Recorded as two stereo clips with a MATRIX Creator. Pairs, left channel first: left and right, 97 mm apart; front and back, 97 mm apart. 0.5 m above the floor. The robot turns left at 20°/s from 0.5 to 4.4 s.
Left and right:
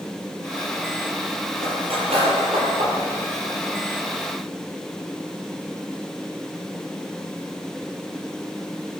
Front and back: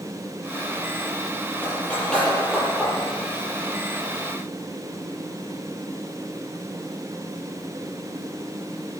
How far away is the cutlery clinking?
About 7 m.